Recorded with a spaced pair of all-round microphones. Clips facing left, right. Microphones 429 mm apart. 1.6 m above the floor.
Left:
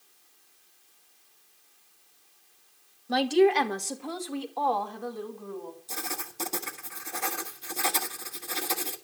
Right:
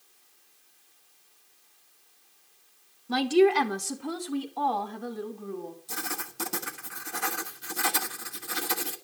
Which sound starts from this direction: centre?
A woman speaking, at 3.1 s.